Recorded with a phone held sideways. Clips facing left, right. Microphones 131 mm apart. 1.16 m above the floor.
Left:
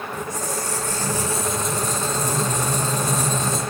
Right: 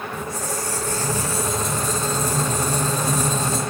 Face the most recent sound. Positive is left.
turn(degrees=20)  # may be behind; listen again after turning